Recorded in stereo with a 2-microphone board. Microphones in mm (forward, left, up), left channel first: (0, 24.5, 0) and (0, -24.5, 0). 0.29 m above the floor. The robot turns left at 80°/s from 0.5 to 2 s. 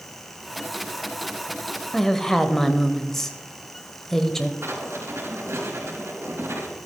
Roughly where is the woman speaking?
Centre.